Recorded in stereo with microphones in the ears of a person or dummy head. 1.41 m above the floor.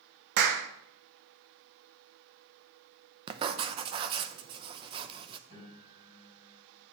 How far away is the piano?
About 6 m.